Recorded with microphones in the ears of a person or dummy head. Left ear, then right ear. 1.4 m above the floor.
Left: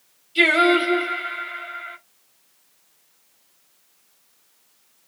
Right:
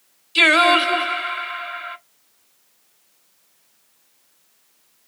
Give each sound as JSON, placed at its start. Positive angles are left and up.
{"t": 0.3, "sound": "singing", "side_deg": -50, "distance_m": 1.6}